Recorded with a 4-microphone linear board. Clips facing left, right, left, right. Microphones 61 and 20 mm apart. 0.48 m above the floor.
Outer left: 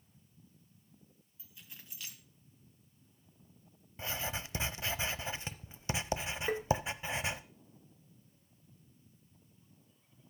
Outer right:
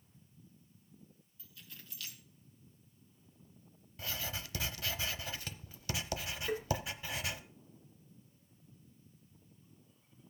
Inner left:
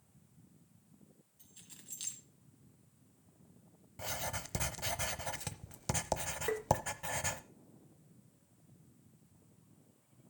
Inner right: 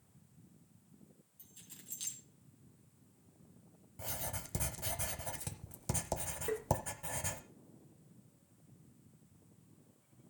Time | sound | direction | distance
1.4 | keys jangling | 20° left (ahead or behind) | 2.5 m
4.0 | writing | 25° left (ahead or behind) | 0.7 m
6.5 | tapping | 35° left (ahead or behind) | 1.2 m